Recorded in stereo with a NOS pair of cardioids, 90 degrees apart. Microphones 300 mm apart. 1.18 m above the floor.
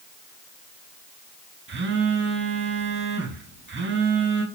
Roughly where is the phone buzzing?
Ahead right.